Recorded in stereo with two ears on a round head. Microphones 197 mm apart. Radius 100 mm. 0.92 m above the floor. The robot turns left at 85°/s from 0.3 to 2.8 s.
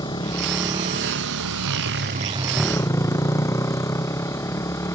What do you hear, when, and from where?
0.0 s a motorcycle: 20° left; by 4.9 s 165° left